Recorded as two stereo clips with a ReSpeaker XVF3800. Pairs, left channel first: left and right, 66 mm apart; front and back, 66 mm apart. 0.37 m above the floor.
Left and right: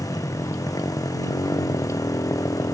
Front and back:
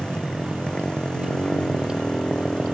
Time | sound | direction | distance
0.0 | a motorcycle | 75° left | ?